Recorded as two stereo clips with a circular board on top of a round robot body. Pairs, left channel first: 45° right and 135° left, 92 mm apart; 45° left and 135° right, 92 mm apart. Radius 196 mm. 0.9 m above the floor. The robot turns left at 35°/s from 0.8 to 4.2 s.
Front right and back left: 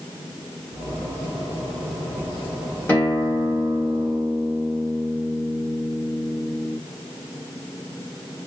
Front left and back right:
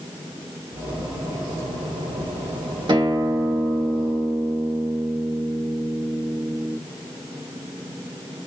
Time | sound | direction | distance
2.9 | a guitar | 115° right | 1.8 m